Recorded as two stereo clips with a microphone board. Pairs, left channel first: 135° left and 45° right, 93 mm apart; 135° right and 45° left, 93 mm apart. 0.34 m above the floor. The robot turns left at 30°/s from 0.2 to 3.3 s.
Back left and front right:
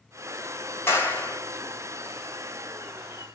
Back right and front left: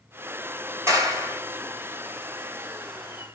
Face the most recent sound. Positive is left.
turn(degrees=15)